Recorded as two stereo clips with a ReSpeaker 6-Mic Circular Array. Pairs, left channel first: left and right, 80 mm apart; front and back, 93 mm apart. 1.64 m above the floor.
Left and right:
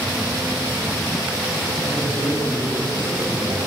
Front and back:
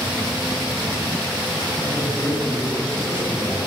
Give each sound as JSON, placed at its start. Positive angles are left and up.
{"t": 1.8, "sound": "a man speaking", "azimuth_deg": -75, "distance_m": 10.0}